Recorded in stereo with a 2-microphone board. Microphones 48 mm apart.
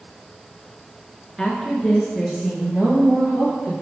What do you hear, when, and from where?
1.4 s a woman speaking: 15° left (ahead or behind), 1.3 m; by 3.7 s 30° right (ahead or behind), 2.5 m